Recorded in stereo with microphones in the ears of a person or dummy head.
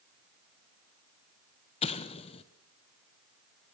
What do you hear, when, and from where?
1.8 s an explosion: 25° left (ahead or behind), 1.2 m